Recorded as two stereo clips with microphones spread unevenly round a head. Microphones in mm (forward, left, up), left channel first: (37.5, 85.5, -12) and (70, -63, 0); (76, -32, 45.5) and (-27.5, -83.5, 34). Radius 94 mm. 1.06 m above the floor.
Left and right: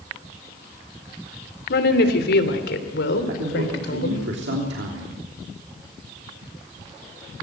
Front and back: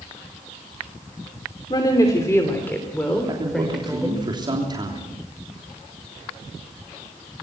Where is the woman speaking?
95° left, 3 m; by 4.2 s 120° left, 4 m.